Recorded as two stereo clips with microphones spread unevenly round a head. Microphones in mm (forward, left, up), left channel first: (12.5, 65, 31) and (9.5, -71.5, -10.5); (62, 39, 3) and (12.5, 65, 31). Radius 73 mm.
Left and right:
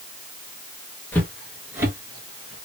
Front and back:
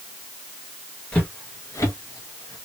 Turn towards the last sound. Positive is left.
turn(degrees=-40)